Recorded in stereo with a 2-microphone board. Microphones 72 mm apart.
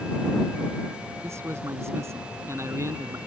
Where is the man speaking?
40° right (ahead or behind).